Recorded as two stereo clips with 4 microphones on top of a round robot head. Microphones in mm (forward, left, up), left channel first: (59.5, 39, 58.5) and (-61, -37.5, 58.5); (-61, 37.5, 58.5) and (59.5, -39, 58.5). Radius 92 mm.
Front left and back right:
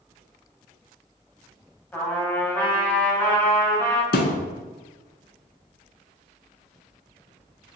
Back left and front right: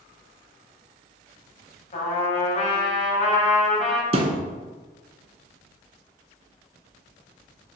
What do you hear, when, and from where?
1.9 s a trumpet: 110° left, 2 m
4.1 s a thud: 15° left, 1.0 m